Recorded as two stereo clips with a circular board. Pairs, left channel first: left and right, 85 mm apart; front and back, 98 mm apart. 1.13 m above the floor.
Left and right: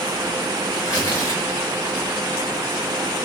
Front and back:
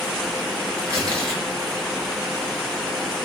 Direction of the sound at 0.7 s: 125° left.